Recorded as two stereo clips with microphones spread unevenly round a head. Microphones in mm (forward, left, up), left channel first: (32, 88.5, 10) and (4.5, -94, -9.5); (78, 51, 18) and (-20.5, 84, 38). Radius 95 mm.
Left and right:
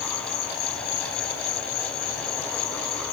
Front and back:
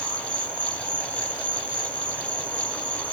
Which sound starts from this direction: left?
An insect, at 0.0 s.